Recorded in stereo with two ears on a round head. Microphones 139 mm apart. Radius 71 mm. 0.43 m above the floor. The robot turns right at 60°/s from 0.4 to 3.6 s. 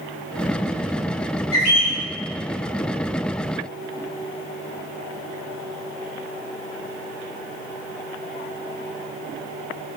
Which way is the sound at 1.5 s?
45° left (ahead or behind).